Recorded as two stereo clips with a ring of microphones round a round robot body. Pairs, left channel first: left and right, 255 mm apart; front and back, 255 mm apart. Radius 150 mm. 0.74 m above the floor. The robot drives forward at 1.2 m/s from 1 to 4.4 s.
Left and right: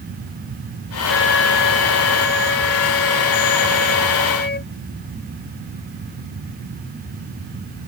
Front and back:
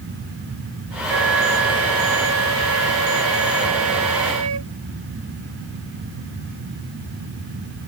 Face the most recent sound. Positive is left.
turn(degrees=140)